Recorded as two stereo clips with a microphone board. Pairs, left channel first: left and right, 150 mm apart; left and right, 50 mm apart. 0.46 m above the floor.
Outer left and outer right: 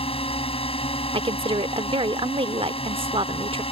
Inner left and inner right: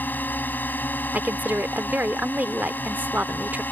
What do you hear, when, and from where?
0.0 s a drone: 40° left (ahead or behind)
1.1 s a woman speaking: 40° right (ahead or behind)